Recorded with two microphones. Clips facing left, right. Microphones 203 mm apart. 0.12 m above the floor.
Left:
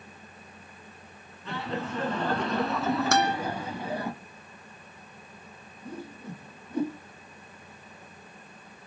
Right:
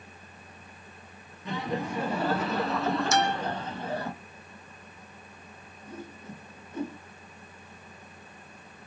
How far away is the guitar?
About 0.9 m.